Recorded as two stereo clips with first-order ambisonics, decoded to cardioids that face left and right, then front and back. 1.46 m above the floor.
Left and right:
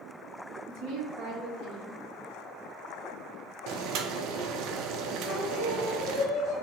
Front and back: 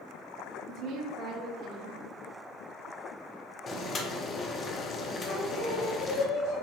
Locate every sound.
0.7 s a woman speaking: 125° right, 1.2 m
3.7 s boiling: 65° right, 0.5 m
5.2 s singing: 40° left, 1.9 m